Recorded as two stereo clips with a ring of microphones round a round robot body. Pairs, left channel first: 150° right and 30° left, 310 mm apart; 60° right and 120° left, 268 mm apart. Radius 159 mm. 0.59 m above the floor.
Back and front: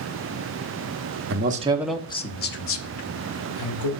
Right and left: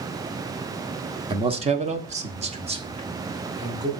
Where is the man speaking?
60° left, 0.9 m; by 3.9 s 165° right, 1.8 m.